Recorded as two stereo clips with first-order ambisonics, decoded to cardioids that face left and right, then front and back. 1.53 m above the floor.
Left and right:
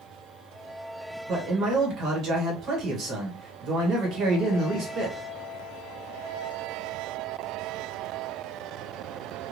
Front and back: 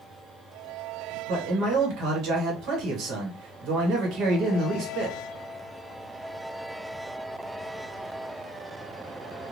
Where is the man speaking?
140° right, 1.4 m.